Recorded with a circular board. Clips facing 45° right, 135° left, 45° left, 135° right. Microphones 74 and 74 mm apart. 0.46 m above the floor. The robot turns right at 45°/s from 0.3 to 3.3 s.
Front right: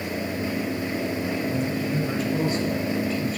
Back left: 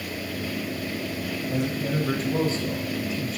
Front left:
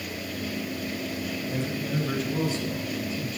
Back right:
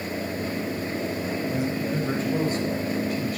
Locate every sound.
1.5 s a man speaking: 140° left, 2.5 m; by 3.4 s 140° right, 2.5 m